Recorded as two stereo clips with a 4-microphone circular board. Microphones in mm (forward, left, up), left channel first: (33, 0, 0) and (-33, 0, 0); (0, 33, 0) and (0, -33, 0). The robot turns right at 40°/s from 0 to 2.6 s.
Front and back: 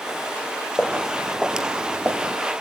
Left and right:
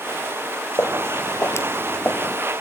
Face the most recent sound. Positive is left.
turn(degrees=150)